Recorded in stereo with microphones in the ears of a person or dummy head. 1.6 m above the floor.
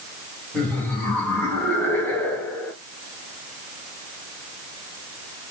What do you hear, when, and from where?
0.5 s laughter: 5° left (ahead or behind), 2.5 m; by 2.7 s 10° left (ahead or behind), 1.3 m